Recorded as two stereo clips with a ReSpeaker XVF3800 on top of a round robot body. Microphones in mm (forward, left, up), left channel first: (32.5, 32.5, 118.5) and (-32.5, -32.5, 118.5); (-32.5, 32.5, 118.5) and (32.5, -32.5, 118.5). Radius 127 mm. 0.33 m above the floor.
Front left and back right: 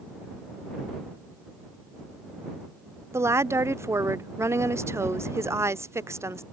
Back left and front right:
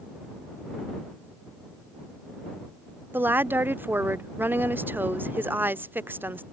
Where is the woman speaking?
100° right.